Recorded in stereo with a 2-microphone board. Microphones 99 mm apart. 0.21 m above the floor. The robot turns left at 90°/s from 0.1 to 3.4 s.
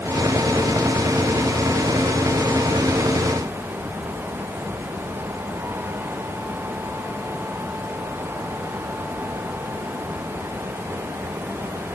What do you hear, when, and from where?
Only background noise.